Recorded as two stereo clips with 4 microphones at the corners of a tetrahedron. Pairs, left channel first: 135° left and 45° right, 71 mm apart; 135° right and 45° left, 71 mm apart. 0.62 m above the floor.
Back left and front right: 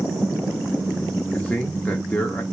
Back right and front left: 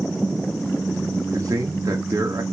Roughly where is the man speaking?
Left.